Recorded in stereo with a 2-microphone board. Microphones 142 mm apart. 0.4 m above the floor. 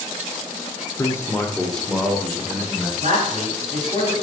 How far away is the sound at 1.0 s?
About 0.9 m.